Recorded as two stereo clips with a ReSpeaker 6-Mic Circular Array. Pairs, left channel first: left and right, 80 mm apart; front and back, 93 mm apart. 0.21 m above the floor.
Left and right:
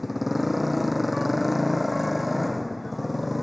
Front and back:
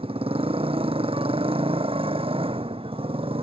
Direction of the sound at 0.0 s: Straight behind.